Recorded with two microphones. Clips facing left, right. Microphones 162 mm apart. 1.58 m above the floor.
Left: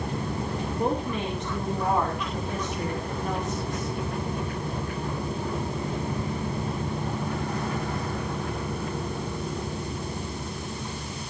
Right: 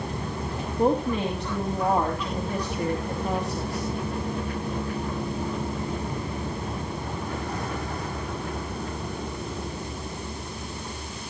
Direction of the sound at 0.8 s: 35° right (ahead or behind).